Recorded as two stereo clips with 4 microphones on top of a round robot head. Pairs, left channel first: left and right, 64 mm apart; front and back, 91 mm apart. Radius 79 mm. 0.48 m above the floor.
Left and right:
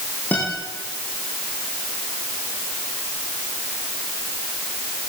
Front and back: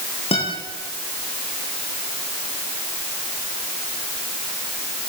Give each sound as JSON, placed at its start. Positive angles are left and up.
{"t": 0.3, "sound": "a guitar", "azimuth_deg": 15, "distance_m": 10.0}